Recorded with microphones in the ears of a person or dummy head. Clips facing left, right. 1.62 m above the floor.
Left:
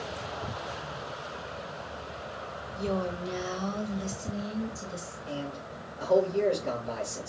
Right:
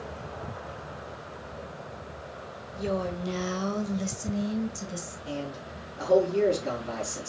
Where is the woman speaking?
20° right (ahead or behind), 0.9 m; by 5.2 s 75° right (ahead or behind), 1.7 m.